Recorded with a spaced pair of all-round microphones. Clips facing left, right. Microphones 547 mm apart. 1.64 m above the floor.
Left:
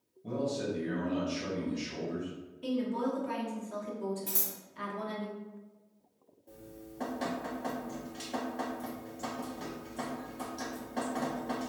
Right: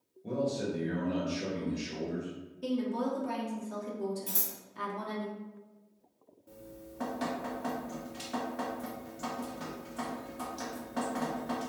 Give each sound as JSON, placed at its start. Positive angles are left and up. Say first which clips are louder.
{"t": 0.2, "sound": "a man speaking", "louder": "right 1 dB", "side_deg": 25, "distance_m": 1.1}
{"t": 2.6, "sound": "a woman speaking", "louder": "even", "side_deg": -60, "distance_m": 0.8}
{"t": 4.3, "sound": "scissors", "louder": "left 1 dB", "side_deg": -20, "distance_m": 1.0}
{"t": 6.5, "sound": "dripping", "louder": "even", "side_deg": -35, "distance_m": 0.5}